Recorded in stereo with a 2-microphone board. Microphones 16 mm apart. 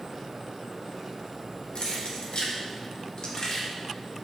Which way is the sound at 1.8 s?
60° left (ahead or behind).